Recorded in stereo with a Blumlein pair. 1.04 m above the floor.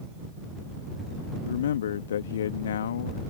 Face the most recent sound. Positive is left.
turn(degrees=60)